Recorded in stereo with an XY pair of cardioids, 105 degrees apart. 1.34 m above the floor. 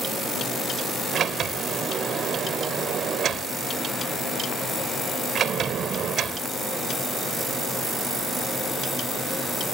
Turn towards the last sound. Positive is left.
turn(degrees=-60)